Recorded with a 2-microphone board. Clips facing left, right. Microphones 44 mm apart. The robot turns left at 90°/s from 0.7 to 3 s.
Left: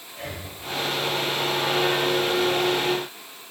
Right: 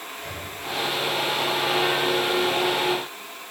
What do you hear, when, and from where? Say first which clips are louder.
0.1 s breathing: left 3 dB; 85° left, 3 m